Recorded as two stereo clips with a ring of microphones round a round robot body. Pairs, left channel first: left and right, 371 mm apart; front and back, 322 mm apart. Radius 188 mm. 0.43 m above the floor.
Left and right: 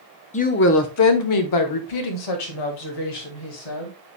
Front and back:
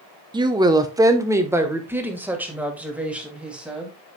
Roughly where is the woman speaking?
Behind left.